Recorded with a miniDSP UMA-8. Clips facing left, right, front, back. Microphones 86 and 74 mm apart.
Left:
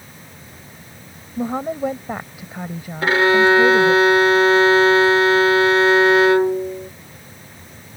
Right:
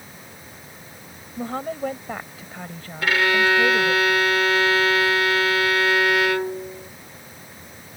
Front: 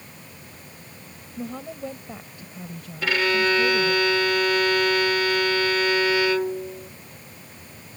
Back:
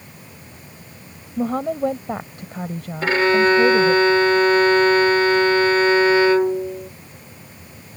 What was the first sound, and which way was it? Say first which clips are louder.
A woman speaking: left 5 dB, back 12 dB; 165° left.